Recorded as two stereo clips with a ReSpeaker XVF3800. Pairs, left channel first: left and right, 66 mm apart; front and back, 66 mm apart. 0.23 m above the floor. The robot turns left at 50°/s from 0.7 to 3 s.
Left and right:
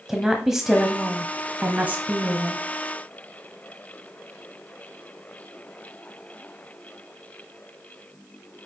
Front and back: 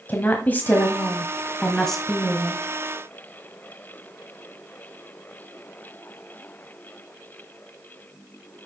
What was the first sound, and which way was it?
A woman speaking, 15° right.